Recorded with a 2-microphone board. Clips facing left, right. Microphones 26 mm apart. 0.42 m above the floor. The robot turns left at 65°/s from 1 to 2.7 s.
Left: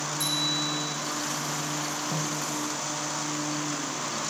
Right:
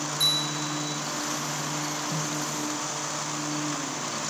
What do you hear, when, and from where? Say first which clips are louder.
0.2 s a bicycle bell: right 2 dB; 40° right (ahead or behind), 9.5 m
2.1 s a snare drum: even; 15° left (ahead or behind), 0.9 m; by 2.4 s 35° left (ahead or behind), 0.9 m